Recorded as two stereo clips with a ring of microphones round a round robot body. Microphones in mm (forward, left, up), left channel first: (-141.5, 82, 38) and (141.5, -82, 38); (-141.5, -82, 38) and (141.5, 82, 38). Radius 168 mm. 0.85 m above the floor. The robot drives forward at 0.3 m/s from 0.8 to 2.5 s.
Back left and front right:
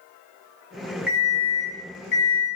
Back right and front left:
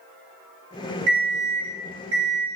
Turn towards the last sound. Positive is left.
turn(degrees=95)